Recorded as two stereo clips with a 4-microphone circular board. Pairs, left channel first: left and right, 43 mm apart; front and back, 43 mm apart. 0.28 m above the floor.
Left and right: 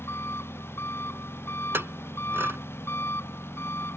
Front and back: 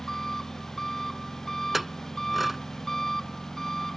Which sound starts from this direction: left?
An engine running, at 0.0 s.